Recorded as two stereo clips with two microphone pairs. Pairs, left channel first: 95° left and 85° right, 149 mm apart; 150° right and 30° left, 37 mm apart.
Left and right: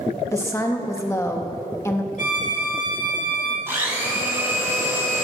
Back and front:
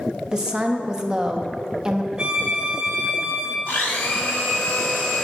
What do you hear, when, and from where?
0.3 s a woman speaking: 60° left, 0.8 m
2.2 s a violin: 85° left, 1.6 m
3.7 s a blender: 155° right, 4 m